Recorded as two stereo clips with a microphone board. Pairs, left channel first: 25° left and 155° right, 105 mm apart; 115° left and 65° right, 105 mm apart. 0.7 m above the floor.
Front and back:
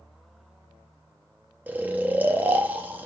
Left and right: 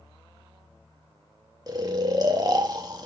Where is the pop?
No pop in this recording.